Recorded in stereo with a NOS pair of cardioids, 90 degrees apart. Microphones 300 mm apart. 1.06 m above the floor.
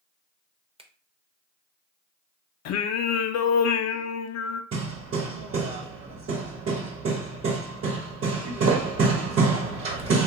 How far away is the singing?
About 0.5 m.